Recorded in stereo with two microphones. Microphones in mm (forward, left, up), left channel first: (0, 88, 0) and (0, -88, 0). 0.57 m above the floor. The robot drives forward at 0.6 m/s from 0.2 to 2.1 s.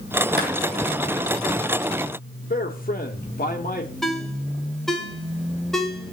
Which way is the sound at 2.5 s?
55° left (ahead or behind).